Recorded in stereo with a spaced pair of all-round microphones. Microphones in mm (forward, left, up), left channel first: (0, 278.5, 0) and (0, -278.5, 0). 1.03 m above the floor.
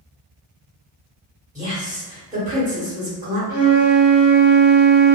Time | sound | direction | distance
1.6 | a woman speaking | 15° right (ahead or behind) | 1.5 m
3.5 | a flute | 15° right (ahead or behind) | 1.3 m